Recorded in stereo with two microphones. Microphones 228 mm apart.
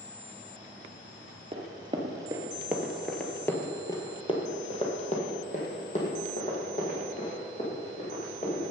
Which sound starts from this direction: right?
Running footsteps, at 1.5 s.